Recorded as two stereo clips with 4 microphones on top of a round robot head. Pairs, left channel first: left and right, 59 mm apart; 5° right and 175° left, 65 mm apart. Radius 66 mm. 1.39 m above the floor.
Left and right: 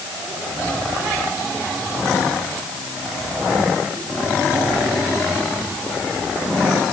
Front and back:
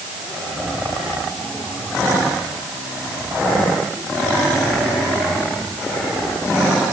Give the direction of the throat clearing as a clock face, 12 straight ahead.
No throat clearing in this recording.